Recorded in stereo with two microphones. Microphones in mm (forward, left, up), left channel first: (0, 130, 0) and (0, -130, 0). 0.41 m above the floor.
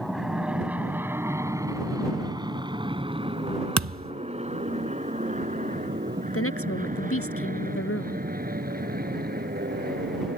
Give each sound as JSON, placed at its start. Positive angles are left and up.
{"t": 0.0, "sound": "an aircraft", "side_deg": 0}
{"t": 3.8, "sound": "a thud", "side_deg": -85}
{"t": 6.3, "sound": "a woman speaking", "side_deg": 60}